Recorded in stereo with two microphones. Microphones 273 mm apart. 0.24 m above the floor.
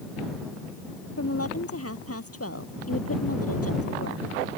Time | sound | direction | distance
1.2 | a woman speaking | 60° left (ahead or behind) | ?